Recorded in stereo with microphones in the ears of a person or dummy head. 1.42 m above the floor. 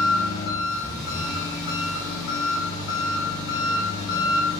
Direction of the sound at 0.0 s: 65° left (ahead or behind).